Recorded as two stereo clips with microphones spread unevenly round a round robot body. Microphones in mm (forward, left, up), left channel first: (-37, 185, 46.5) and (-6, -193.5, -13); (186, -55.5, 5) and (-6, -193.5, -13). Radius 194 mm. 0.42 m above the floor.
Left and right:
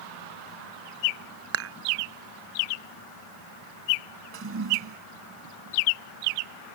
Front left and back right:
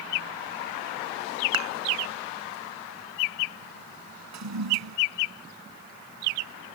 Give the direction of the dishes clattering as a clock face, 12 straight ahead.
5 o'clock.